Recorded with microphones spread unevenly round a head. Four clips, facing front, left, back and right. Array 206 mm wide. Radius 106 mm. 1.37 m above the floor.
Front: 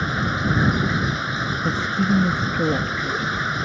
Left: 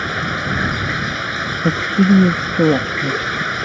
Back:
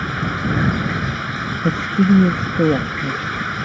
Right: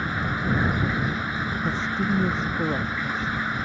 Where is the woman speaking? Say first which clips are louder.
Left 13 dB, back 7 dB; 120° left.